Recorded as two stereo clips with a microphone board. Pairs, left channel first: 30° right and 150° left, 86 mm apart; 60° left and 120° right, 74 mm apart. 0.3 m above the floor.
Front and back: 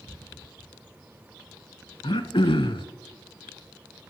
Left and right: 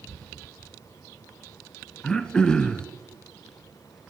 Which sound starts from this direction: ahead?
Throat clearing, at 2.0 s.